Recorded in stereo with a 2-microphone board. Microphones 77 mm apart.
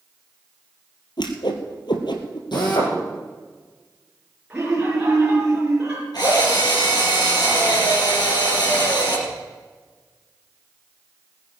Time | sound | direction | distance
1.2 | a whoosh | 75° left (ahead or behind) | 2 m
2.5 | a drill | 70° left (ahead or behind) | 5.5 m
4.5 | laughter | 15° right (ahead or behind) | 4 m
6.1 | a drill | 60° left (ahead or behind) | 6 m